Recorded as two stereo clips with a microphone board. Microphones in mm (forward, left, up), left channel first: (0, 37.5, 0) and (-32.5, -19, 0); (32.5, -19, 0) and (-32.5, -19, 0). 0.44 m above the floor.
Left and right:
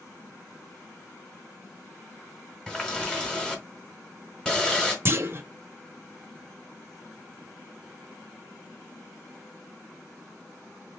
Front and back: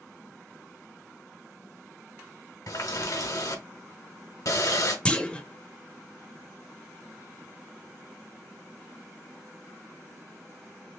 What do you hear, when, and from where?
2.7 s a running tap: 15° right, 1.4 m
5.0 s a clunk: 70° right, 0.6 m